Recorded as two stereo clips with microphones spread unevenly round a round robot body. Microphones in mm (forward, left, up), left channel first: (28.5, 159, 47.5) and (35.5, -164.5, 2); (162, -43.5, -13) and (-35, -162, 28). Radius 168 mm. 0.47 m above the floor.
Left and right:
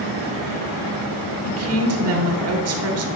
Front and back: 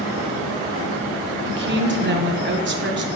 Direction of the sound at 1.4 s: 110° right.